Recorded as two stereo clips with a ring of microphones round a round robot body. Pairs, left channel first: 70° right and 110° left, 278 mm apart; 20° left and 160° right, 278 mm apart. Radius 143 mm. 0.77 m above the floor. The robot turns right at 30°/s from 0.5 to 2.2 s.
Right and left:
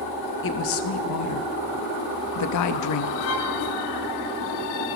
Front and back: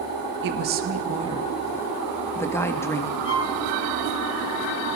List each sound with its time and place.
0.4 s a woman speaking: 110° right, 0.7 m; by 3.1 s 60° right, 0.7 m
3.2 s a violin: 25° right, 1.8 m